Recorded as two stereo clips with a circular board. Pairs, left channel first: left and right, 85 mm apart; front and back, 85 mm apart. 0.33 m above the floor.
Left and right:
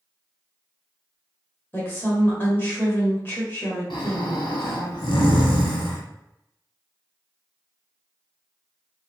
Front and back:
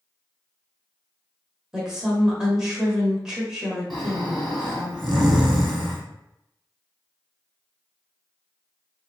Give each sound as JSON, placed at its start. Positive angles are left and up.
{"t": 1.7, "sound": "a woman speaking", "azimuth_deg": 110, "distance_m": 1.2}
{"t": 3.9, "sound": "snoring", "azimuth_deg": 90, "distance_m": 1.2}